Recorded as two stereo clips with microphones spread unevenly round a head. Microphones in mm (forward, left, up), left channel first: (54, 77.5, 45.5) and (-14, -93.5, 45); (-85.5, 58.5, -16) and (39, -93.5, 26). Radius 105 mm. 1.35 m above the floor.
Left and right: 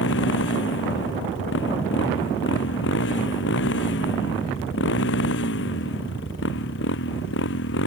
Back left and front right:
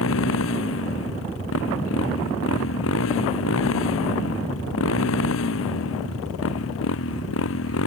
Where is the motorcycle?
100° left.